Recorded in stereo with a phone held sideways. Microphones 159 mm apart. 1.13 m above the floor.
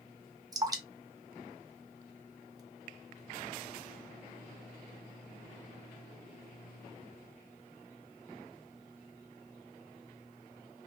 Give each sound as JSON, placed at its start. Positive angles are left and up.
{"t": 0.5, "sound": "dripping", "side_deg": -25, "distance_m": 0.8}